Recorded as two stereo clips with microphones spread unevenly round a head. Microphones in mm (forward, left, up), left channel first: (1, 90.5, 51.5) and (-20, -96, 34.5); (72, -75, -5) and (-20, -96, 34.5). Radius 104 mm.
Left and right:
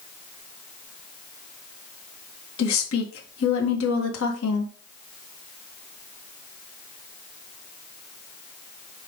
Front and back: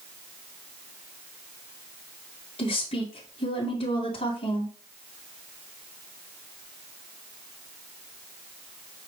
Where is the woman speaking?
65° left, 1.8 m.